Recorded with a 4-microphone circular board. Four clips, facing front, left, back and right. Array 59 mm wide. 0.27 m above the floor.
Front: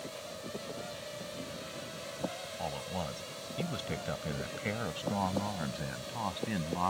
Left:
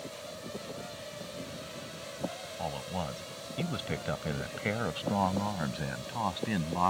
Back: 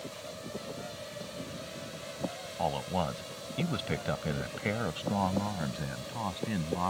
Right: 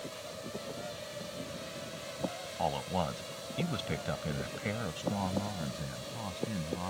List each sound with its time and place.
2.6 s a man speaking: 145° right; by 6.9 s 90° left